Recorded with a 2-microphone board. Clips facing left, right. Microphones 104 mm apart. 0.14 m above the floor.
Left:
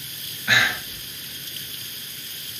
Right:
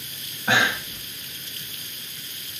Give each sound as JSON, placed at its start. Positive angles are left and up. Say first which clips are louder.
{"t": 0.5, "sound": "breathing", "louder": "right 1 dB", "side_deg": -35, "distance_m": 2.0}